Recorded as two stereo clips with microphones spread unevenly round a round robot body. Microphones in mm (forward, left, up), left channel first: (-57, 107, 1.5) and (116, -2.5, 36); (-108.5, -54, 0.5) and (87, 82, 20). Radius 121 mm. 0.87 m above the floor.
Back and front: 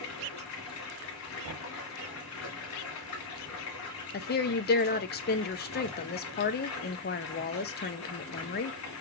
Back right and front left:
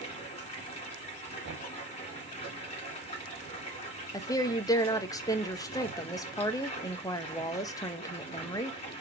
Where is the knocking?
20° right, 1.2 m.